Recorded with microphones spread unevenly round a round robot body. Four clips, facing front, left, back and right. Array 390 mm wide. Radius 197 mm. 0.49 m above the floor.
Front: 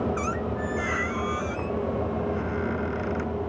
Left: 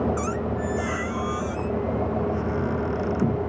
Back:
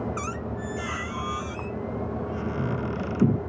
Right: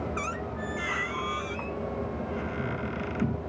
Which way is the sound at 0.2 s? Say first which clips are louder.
Left 7 dB, front 4 dB; 165° left.